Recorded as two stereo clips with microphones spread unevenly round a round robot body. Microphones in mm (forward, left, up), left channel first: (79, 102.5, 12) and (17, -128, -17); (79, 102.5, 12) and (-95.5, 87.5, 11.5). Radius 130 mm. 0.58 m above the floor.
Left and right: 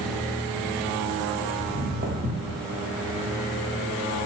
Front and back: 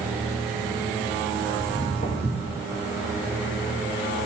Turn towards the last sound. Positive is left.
turn(degrees=-65)